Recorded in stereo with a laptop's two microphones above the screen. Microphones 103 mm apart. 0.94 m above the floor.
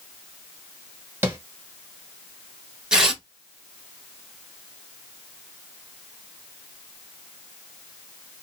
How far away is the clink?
No clink in this recording.